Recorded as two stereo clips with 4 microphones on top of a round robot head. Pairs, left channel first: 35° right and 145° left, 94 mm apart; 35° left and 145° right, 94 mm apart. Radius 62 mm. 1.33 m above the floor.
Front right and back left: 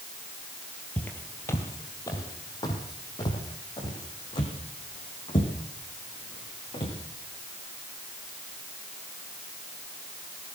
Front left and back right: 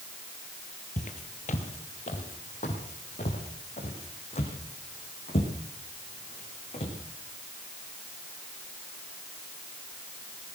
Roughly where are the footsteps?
Ahead left.